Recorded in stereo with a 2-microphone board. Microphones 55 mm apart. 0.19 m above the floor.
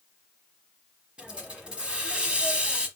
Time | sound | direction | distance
1.2 | a hiss | 20° right (ahead or behind) | 0.9 m